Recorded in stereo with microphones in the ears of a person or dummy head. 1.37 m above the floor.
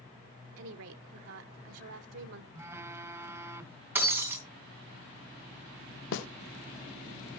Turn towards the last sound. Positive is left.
turn(degrees=70)  # may be behind; listen again after turning